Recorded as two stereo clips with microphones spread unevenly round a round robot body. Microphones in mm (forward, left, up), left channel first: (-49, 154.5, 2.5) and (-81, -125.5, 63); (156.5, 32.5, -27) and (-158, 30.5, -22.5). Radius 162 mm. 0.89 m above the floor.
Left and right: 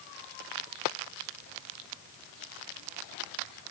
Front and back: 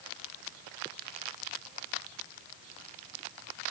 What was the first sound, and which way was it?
Only background noise.